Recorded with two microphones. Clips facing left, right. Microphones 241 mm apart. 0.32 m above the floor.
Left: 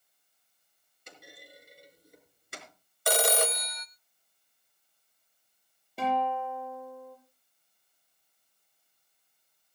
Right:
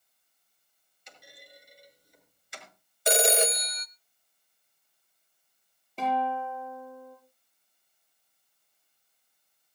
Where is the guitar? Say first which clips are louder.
Even; 10° left (ahead or behind), 8 m.